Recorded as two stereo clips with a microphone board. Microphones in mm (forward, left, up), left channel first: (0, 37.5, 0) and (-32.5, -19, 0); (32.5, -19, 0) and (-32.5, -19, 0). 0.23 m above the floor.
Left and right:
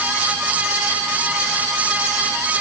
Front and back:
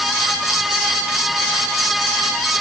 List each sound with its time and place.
Only background noise.